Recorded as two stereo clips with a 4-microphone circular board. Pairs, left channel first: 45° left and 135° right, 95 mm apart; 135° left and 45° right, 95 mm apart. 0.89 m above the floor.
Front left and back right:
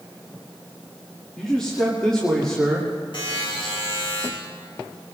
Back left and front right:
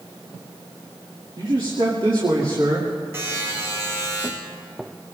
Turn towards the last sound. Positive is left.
turn(degrees=15)